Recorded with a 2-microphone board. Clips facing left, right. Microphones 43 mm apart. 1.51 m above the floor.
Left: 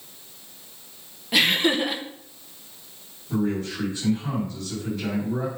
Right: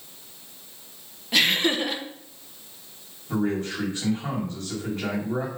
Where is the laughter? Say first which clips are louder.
Left 1 dB; 5° left (ahead or behind), 1.0 m.